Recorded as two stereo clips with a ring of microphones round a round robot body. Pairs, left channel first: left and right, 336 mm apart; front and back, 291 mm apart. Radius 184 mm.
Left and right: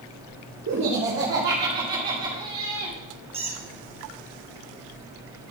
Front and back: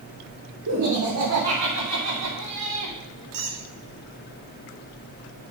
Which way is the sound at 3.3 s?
165° right.